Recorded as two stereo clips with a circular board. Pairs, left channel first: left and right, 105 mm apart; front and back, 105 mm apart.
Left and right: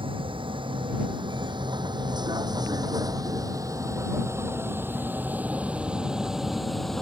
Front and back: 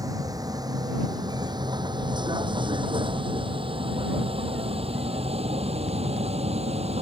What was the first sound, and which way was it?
A vehicle, 125° right.